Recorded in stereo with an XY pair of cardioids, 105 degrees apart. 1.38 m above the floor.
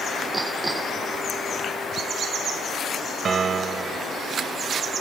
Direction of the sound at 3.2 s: 40° right.